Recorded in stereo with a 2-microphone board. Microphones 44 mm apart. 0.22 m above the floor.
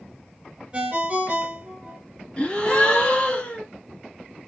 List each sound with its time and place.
0.7 s a ringtone: 30° right (ahead or behind), 1.3 m
2.4 s a gasp: 25° left (ahead or behind), 1.6 m